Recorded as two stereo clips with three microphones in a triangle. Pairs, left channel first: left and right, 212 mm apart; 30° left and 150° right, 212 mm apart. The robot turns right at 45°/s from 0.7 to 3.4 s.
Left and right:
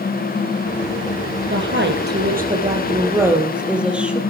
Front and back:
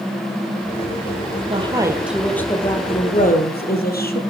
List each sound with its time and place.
1.5 s a woman speaking: 90° right, 2.5 m; by 4.2 s 5° right, 2.5 m